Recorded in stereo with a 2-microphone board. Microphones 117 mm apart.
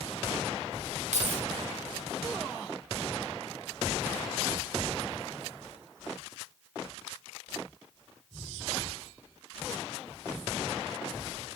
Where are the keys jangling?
80° right, 3.5 m.